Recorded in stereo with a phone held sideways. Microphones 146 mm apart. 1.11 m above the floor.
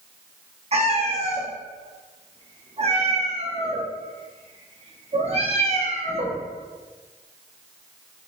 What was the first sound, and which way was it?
A cat meowing, 45° right (ahead or behind).